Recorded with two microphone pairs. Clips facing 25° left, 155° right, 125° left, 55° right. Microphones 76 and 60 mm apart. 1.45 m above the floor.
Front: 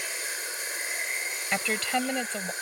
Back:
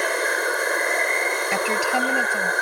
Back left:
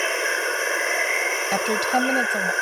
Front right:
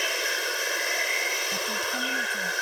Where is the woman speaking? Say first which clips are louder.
Back 4 dB, back left 8 dB; 130° left.